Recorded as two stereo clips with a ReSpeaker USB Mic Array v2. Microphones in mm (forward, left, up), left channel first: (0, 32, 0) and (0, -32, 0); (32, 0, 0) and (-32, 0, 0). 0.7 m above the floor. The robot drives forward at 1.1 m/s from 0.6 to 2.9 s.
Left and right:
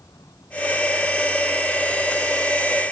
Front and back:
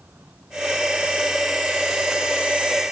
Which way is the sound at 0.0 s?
115° left.